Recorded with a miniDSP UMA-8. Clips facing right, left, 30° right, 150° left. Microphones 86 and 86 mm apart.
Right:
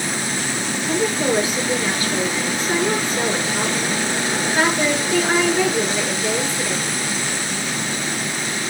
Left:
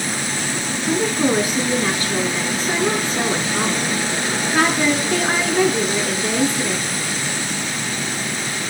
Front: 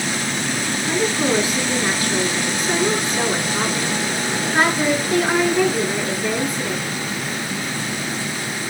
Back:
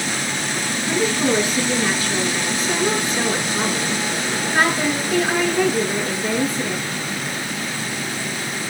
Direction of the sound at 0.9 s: 35° left.